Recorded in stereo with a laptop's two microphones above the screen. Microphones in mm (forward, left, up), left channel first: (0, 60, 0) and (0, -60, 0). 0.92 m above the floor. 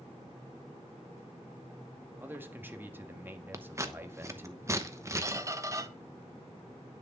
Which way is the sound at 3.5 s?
25° right (ahead or behind).